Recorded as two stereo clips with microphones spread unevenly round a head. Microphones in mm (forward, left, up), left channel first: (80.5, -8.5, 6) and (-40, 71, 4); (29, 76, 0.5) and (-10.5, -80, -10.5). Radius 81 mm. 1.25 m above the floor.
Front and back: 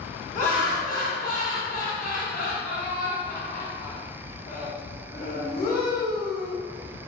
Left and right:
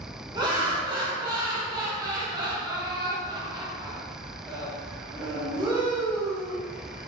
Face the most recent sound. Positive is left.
turn(degrees=-45)